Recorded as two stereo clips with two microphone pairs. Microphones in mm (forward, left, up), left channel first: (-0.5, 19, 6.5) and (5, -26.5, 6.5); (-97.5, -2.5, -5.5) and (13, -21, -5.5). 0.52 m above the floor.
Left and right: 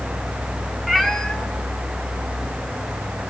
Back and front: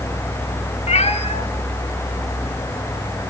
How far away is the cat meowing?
About 1.8 m.